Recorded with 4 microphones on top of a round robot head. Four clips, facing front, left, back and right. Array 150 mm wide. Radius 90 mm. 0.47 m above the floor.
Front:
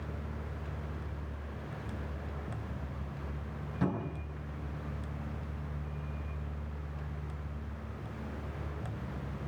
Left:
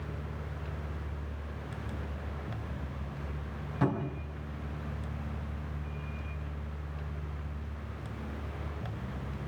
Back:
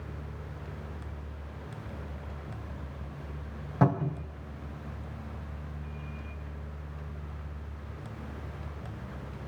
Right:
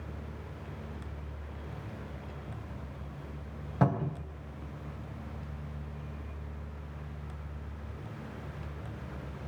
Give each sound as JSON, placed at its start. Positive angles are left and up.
{"t": 3.8, "sound": "a cupboard door", "azimuth_deg": -145, "distance_m": 3.0}